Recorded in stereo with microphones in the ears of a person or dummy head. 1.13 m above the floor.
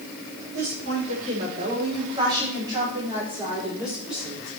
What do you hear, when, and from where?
0.5 s a woman speaking: 50° right (ahead or behind), 3 m; by 4.5 s centre (ahead or behind), 4.5 m